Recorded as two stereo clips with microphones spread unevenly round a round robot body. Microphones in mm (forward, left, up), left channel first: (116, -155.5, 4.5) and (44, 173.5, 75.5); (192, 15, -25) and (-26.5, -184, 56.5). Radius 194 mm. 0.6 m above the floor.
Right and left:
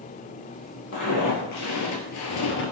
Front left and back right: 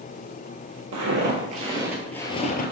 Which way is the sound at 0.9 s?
140° right.